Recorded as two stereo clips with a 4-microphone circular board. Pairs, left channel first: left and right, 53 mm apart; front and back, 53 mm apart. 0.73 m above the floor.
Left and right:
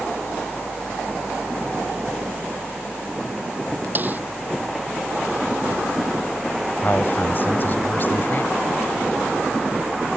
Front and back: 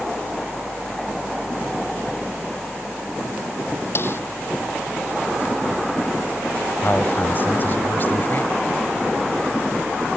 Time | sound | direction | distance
4.0 | a snare drum | 40° right | ?
6.8 | a man speaking | 45° left | ?